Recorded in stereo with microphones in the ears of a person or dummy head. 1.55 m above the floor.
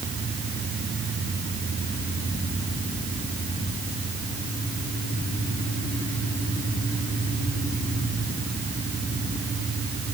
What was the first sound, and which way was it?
Only background noise.